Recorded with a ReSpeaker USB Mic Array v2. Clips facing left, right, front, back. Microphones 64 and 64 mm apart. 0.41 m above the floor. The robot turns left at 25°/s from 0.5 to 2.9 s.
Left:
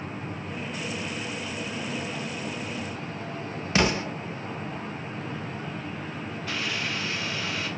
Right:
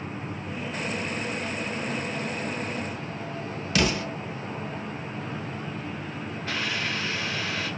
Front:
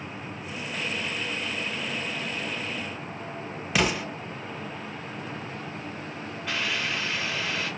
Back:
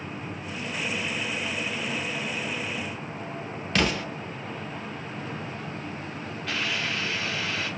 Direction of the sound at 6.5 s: 75° right.